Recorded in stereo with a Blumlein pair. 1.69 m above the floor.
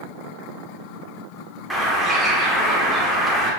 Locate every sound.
1.7 s a bird: straight ahead, 1.1 m